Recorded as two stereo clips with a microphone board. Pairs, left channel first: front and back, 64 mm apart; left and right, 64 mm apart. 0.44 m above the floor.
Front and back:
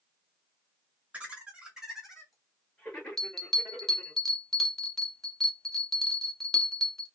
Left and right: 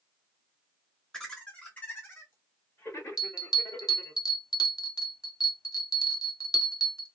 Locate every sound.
1.1 s laughter: 160° left, 1.0 m; by 4.2 s 70° left, 1.9 m
3.2 s a bell: 85° left, 0.7 m